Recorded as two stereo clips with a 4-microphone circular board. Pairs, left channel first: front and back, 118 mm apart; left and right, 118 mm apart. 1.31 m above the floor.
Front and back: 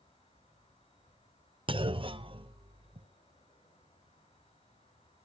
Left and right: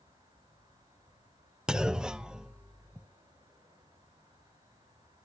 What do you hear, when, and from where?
0.0 s an insect: 35° right, 9 m
1.7 s a clunk: 170° right, 0.6 m